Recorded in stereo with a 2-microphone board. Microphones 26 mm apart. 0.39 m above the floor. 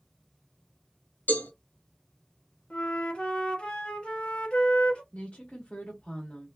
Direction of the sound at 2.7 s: 40° left (ahead or behind).